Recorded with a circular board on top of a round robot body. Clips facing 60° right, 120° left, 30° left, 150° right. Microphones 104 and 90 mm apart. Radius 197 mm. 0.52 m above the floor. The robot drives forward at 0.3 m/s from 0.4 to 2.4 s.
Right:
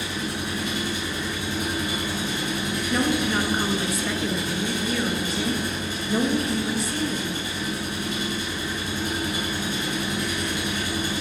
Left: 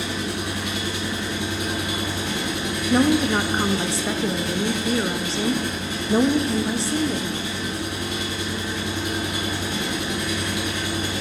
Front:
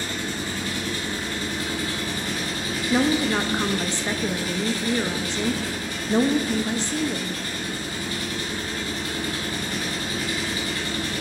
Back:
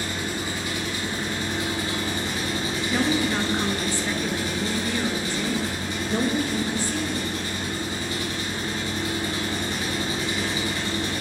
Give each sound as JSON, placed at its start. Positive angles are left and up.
{"t": 0.0, "sound": "an engine running", "azimuth_deg": 135, "distance_m": 1.9}
{"t": 2.9, "sound": "a woman speaking", "azimuth_deg": 85, "distance_m": 0.8}